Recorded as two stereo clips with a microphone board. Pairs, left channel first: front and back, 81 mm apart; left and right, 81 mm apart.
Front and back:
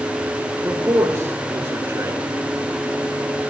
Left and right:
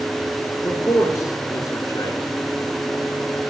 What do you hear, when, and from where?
0.6 s a man speaking: 125° left, 2.5 m